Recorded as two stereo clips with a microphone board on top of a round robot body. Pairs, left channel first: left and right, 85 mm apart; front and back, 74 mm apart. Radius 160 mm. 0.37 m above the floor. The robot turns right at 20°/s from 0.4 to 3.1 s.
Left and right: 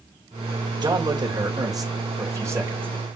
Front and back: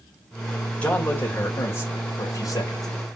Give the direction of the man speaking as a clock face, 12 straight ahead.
2 o'clock.